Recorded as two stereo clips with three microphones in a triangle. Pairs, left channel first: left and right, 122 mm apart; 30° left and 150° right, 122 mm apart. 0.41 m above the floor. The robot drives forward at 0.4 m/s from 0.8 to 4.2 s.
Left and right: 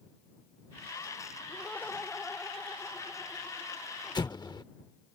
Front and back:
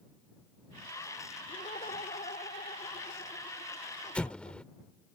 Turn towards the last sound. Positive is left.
turn(degrees=105)